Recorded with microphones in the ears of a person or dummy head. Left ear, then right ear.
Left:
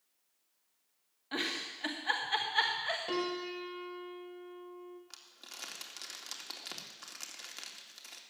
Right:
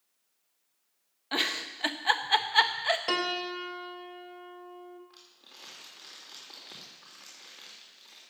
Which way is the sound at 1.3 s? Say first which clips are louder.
Right 6 dB; 25° right (ahead or behind).